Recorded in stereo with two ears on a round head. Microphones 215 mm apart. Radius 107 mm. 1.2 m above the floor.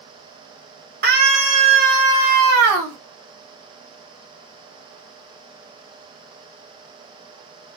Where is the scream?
40° right (ahead or behind), 1.4 m; by 3.0 s 70° right (ahead or behind), 1.7 m.